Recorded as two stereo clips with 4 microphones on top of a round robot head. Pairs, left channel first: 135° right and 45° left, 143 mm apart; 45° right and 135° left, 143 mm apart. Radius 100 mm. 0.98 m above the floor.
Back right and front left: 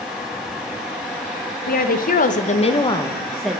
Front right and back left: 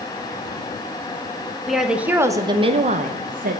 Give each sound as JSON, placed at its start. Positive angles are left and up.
{"t": 1.7, "sound": "a woman speaking", "azimuth_deg": -135, "distance_m": 1.2}